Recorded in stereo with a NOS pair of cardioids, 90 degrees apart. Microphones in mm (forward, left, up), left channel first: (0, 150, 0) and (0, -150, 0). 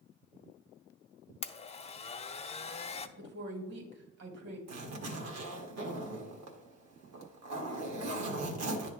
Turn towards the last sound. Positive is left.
turn(degrees=-65)